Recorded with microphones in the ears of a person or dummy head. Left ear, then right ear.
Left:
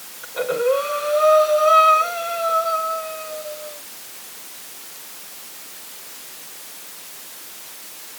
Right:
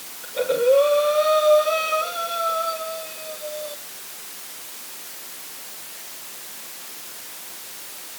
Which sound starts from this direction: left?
Breathing, at 0.2 s.